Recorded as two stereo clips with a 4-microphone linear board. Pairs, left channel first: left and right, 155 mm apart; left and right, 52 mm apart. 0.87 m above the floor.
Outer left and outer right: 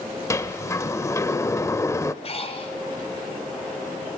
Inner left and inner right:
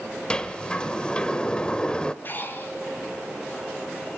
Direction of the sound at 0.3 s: 20° left (ahead or behind).